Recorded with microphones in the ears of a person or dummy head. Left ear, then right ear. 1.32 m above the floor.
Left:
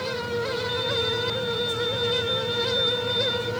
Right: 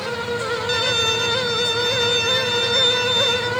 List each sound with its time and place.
0.7 s a violin: 70° right (ahead or behind)